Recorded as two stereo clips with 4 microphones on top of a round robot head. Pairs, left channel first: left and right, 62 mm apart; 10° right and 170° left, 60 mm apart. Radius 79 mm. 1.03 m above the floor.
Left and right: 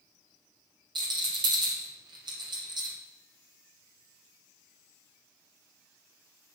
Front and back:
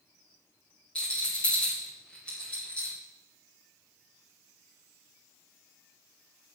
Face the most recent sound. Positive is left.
turn(degrees=-90)